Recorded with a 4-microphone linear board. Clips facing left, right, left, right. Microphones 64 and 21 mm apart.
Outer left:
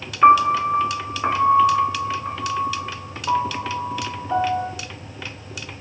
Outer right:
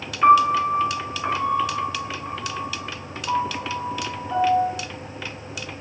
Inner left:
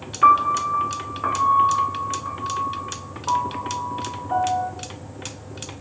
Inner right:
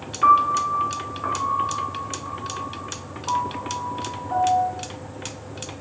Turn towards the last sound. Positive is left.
turn(degrees=20)  # may be behind; listen again after turning